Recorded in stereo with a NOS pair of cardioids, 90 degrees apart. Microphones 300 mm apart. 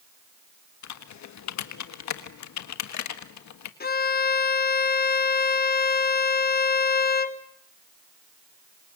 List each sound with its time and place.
0.8 s typing on a keyboard: 70° left, 1.6 m
3.8 s a violin: 30° left, 1.6 m